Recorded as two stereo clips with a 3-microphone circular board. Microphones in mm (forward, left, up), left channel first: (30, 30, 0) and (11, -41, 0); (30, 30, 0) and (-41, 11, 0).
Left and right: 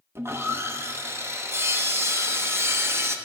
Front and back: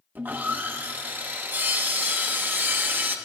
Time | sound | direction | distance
0.1 | sawing | 125° right | 0.8 m